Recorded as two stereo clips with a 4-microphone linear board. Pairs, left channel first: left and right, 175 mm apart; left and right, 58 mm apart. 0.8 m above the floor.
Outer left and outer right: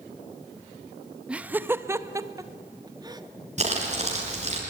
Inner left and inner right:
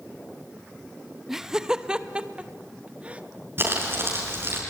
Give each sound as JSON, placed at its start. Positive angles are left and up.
{"t": 1.3, "sound": "laughter", "side_deg": -5, "distance_m": 0.8}
{"t": 3.6, "sound": "crumpling", "side_deg": -35, "distance_m": 6.0}